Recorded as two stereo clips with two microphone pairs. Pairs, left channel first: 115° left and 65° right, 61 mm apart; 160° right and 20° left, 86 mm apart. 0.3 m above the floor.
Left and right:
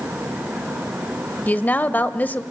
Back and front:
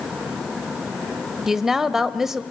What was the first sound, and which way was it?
A woman speaking, 100° left.